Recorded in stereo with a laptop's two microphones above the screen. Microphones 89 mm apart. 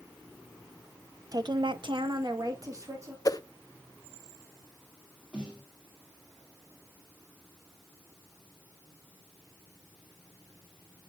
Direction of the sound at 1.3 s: 45° right (ahead or behind).